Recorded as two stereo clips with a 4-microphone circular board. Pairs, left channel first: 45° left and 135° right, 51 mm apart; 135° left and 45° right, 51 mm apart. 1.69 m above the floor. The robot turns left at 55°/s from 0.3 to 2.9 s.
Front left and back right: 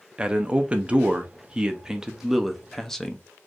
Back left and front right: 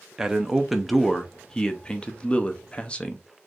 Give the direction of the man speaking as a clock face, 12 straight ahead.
3 o'clock.